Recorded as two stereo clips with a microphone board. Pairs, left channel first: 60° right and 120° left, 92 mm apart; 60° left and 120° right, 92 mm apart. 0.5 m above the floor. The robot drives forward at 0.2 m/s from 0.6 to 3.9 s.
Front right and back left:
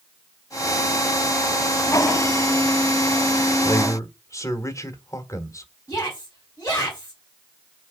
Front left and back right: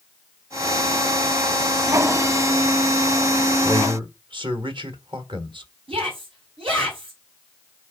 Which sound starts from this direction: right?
A man speaking, at 3.6 s.